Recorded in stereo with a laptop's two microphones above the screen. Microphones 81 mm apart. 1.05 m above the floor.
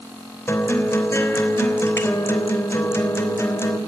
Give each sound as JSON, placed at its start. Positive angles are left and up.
{"t": 0.5, "sound": "a guitar", "side_deg": 30, "distance_m": 3.5}